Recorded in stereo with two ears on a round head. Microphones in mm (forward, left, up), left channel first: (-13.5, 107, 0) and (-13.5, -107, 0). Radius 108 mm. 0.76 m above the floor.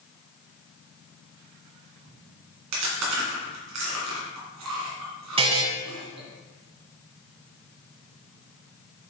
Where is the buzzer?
25° right (ahead or behind), 1.0 m.